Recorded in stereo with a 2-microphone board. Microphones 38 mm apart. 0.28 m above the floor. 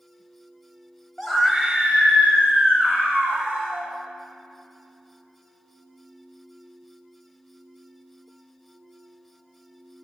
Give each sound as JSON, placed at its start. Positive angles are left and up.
{"t": 1.2, "sound": "a scream", "side_deg": 5, "distance_m": 1.1}